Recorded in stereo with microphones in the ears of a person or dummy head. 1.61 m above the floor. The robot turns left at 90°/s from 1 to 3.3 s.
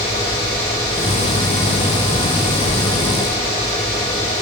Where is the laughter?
No laughter in this recording.